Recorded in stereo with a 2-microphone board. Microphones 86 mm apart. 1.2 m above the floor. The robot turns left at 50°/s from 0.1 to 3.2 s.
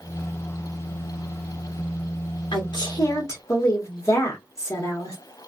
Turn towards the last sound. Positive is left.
turn(degrees=35)